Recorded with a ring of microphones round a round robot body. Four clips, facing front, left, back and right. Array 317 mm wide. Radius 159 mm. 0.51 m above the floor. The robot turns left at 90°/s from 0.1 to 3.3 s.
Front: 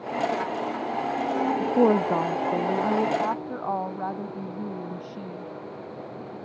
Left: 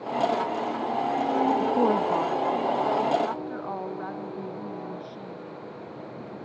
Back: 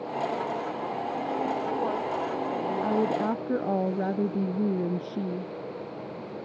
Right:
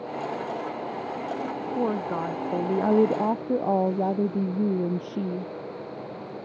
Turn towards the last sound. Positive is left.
turn(degrees=-120)